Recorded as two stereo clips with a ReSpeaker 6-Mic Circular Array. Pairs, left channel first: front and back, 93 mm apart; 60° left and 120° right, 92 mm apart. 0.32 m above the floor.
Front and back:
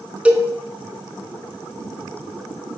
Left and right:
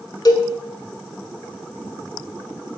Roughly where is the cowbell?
Left.